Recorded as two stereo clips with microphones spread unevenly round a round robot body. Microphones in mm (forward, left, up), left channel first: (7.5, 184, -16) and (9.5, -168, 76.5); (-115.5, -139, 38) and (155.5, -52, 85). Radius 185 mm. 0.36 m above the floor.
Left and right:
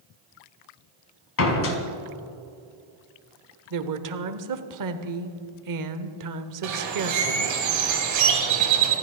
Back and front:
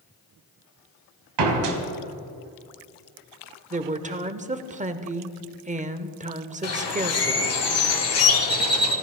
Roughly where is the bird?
Behind right.